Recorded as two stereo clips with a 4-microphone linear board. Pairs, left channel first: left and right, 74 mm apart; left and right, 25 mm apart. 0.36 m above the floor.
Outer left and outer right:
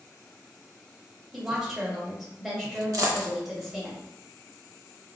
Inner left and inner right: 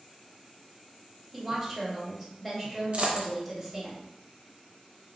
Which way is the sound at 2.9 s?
55° right (ahead or behind).